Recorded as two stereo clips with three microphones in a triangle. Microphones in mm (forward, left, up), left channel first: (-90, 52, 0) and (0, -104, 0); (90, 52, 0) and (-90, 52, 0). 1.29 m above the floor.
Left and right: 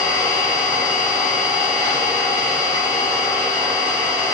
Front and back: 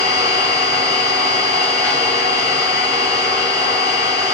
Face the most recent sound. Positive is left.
turn(degrees=145)